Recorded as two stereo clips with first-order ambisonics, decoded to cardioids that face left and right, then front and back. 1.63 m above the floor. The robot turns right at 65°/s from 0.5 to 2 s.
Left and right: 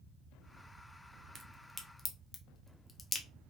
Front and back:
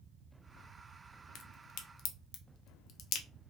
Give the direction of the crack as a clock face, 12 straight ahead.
1 o'clock.